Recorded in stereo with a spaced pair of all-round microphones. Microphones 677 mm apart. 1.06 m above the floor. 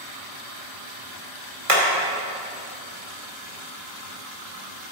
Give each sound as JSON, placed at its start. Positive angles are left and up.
{"t": 1.7, "sound": "hammering", "side_deg": -55, "distance_m": 2.5}